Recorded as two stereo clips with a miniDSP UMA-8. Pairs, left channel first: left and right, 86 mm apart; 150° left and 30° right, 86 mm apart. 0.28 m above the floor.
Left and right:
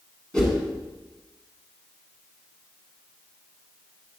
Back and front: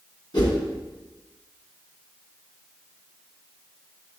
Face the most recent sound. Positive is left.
turn(degrees=170)